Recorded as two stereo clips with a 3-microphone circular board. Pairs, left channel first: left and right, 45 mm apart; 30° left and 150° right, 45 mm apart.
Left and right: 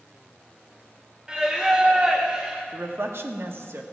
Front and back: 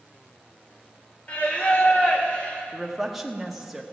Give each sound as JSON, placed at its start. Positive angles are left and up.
{"t": 1.3, "sound": "singing", "azimuth_deg": -20, "distance_m": 1.6}
{"t": 2.7, "sound": "a woman speaking", "azimuth_deg": -65, "distance_m": 1.3}